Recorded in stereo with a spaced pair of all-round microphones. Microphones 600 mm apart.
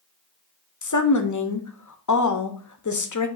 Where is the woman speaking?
35° left (ahead or behind), 0.5 m.